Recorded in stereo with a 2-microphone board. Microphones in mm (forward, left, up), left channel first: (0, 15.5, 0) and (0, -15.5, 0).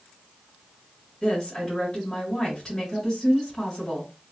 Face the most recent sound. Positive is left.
turn(degrees=20)  # may be behind; listen again after turning